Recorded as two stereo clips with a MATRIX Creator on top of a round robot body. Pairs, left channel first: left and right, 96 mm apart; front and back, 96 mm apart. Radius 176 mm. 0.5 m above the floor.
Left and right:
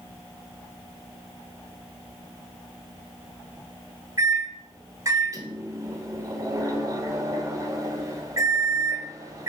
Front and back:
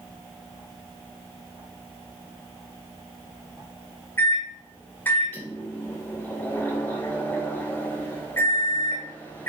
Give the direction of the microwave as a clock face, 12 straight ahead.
2 o'clock.